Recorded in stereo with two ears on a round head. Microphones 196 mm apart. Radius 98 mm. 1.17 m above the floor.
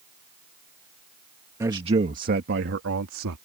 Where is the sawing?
I don't hear sawing.